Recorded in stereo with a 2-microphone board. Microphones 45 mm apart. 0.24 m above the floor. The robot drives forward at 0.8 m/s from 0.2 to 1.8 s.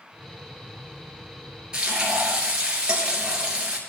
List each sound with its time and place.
1.7 s frying: 15° right (ahead or behind), 3 m